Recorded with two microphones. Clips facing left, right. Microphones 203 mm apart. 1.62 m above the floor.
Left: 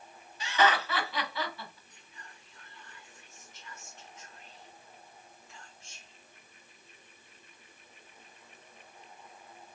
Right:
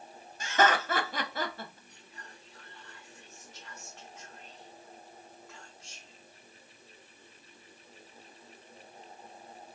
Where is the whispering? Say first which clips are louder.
Right 3 dB; 70° right (ahead or behind), 0.7 m.